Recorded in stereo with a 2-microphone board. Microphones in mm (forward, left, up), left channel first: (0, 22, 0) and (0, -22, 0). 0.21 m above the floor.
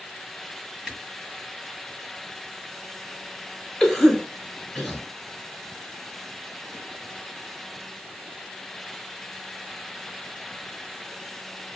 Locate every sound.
0.9 s a camera shutter: 15° right (ahead or behind), 1.3 m
3.8 s a cough: 10° left (ahead or behind), 1.5 m